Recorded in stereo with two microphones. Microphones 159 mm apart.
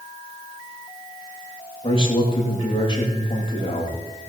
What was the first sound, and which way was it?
A man speaking, 35° left (ahead or behind).